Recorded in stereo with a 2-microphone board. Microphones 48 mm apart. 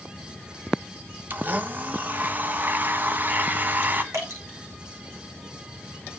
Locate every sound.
1.3 s a blender: 40° right (ahead or behind), 1.3 m
4.1 s dripping: 75° right (ahead or behind), 8.5 m